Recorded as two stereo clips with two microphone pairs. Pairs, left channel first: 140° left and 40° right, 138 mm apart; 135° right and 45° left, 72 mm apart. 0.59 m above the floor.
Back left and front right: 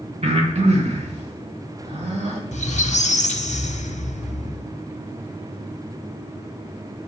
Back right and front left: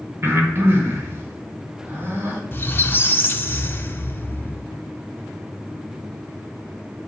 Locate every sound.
0.2 s breathing: 5° right, 1.3 m
2.5 s a squeak: 165° left, 0.6 m